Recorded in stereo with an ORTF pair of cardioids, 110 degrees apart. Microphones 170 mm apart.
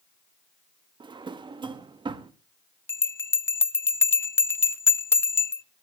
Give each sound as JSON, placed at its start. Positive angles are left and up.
{"t": 1.0, "sound": "a drawer", "azimuth_deg": -30, "distance_m": 1.2}
{"t": 2.9, "sound": "a bell", "azimuth_deg": 15, "distance_m": 0.6}